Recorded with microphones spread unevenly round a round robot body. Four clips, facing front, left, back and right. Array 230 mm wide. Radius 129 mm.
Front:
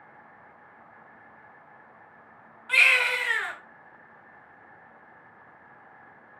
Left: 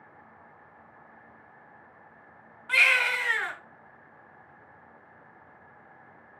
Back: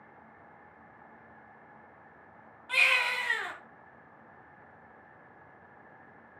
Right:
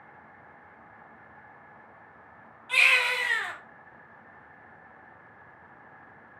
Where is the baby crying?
50° left, 2.5 m.